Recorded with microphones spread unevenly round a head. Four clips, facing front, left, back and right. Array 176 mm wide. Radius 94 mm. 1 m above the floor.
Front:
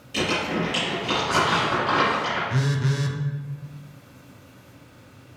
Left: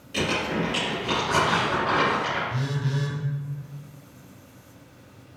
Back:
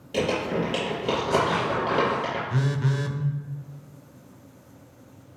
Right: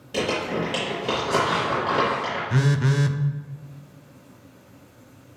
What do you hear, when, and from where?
0.1 s crumpling: 145° right, 3.5 m
2.5 s a phone buzzing: 70° right, 0.6 m